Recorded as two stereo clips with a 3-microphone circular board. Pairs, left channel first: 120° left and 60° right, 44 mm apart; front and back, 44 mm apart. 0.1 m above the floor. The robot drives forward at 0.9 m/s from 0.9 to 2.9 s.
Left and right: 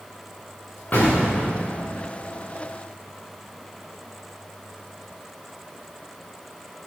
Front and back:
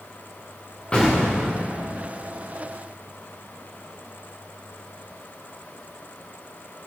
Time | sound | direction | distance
0.9 | an explosion | 70° left | 5 m